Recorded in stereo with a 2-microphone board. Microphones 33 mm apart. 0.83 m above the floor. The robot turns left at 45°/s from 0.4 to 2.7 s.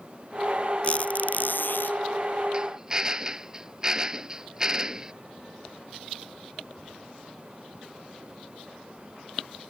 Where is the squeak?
140° left; by 2.0 s 90° left.